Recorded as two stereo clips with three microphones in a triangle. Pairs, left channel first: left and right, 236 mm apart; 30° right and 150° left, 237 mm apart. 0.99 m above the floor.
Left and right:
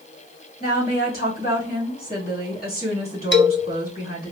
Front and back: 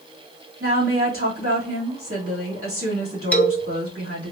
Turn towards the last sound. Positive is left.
turn(degrees=55)